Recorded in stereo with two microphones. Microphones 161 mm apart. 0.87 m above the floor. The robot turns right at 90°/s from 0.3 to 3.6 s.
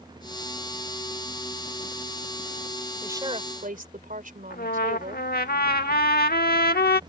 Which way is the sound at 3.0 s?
170° right.